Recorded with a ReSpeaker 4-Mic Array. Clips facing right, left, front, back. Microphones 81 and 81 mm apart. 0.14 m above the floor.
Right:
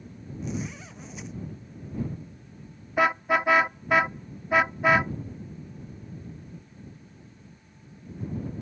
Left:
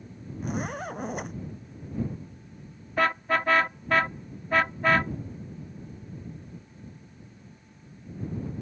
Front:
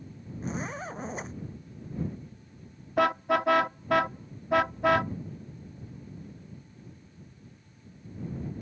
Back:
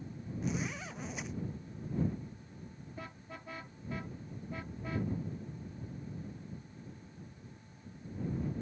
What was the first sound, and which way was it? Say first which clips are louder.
A zipper: left 3 dB, front 4 dB; 50° left.